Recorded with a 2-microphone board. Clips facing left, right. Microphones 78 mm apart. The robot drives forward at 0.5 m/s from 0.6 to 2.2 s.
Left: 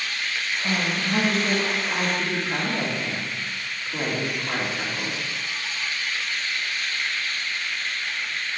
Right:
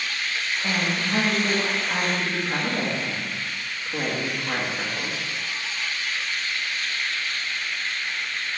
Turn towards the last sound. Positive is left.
turn(degrees=-15)  # may be behind; listen again after turning